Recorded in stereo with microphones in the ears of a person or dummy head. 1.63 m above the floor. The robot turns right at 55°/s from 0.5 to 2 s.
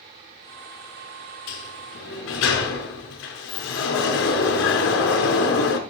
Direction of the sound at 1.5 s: 65° left (ahead or behind).